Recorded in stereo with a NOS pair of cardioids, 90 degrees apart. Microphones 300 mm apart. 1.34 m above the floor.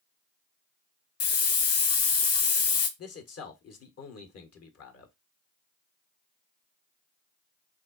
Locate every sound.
1.2 s a hiss: 50° left, 1.2 m
3.0 s a man speaking: 50° left, 1.6 m